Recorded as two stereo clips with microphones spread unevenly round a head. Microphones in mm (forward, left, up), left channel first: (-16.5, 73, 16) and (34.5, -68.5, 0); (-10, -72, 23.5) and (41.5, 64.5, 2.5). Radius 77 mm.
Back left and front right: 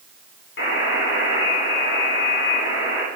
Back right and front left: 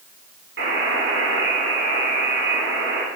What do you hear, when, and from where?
0.6 s a buzzer: 90° left, 7 m